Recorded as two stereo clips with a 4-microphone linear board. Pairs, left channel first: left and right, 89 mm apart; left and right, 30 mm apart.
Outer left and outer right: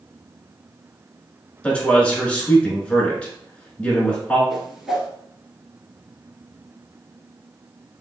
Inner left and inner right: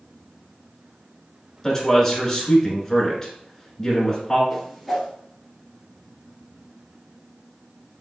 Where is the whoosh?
5° right (ahead or behind), 1.1 m.